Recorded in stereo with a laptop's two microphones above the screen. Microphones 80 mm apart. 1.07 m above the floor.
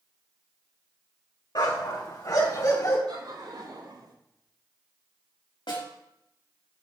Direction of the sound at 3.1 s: 65° right (ahead or behind).